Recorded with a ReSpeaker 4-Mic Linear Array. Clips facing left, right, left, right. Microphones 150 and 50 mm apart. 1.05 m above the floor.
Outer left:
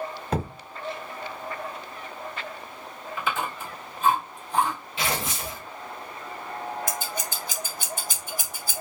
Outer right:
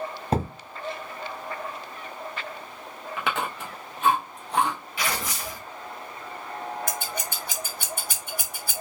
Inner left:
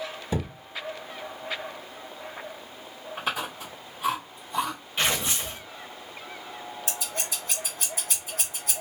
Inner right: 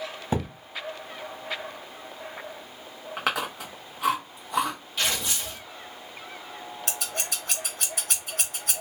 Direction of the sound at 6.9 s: 60° right (ahead or behind).